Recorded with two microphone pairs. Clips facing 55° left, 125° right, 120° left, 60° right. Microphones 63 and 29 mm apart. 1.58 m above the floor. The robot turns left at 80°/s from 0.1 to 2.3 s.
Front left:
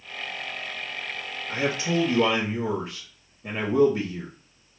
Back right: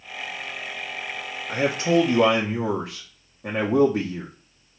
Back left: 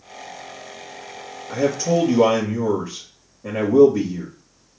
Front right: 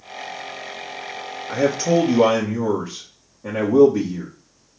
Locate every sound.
1.5 s a man speaking: 65° right, 1.0 m; by 4.3 s 130° right, 1.0 m